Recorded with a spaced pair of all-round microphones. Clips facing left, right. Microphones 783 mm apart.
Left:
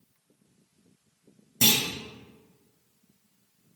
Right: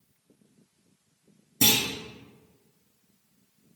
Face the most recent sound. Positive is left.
turn(degrees=10)  # may be behind; listen again after turning